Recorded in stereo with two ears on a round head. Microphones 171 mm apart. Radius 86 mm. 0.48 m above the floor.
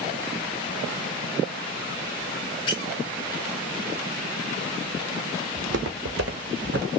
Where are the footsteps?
65° right (ahead or behind), 1.1 m; by 6.9 s 60° right (ahead or behind), 2 m.